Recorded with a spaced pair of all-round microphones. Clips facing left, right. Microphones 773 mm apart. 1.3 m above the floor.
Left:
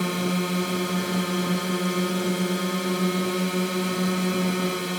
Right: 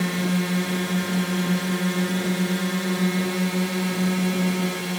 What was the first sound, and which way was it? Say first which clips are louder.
A drone: right 1 dB; 30° right (ahead or behind).